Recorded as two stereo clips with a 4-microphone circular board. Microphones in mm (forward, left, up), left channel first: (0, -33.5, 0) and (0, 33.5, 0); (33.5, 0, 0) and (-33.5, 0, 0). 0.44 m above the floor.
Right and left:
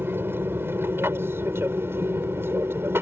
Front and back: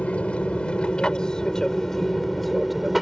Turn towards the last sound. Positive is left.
turn(degrees=95)